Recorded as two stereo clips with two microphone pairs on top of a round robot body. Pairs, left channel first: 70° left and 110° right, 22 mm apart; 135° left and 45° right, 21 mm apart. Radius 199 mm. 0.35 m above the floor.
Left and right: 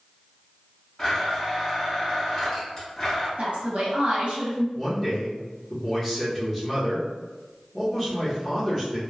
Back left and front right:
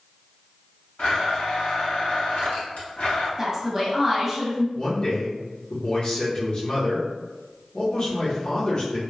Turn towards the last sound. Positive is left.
turn(degrees=150)